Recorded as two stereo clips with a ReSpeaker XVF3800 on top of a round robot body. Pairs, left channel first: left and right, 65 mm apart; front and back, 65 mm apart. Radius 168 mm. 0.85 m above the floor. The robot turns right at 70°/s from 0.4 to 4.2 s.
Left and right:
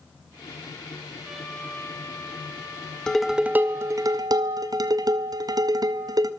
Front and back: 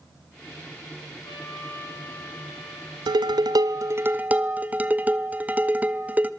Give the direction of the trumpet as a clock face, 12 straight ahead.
12 o'clock.